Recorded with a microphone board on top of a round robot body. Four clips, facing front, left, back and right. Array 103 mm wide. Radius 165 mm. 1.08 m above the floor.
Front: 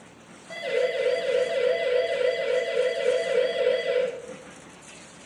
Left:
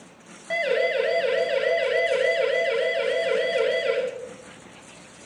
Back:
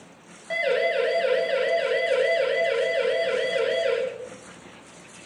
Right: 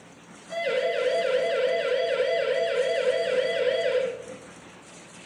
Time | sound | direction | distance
0.5 | a siren | 125° left | 9 m